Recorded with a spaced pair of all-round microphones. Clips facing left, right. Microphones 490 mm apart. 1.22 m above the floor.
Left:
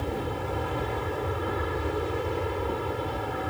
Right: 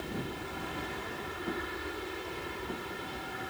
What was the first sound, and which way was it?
An aircraft, 75° left (ahead or behind).